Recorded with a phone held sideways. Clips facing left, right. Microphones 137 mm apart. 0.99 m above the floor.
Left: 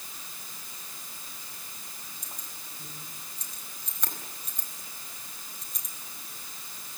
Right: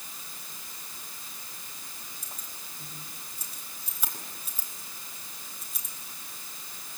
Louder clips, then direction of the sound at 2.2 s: Even; 5° right (ahead or behind).